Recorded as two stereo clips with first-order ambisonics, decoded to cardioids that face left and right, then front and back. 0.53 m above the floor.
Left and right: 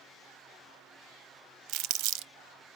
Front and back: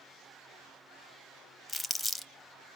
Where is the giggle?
No giggle in this recording.